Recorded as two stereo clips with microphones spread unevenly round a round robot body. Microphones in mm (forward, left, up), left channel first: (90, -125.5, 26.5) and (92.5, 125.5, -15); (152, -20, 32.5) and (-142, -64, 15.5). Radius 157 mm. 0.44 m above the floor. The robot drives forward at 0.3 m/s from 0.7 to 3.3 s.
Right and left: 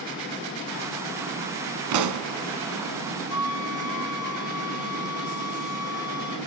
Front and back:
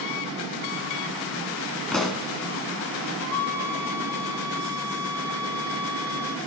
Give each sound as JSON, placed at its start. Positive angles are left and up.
{"t": 1.9, "sound": "a pop", "azimuth_deg": 95, "distance_m": 1.3}
{"t": 3.3, "sound": "a flute", "azimuth_deg": -75, "distance_m": 3.5}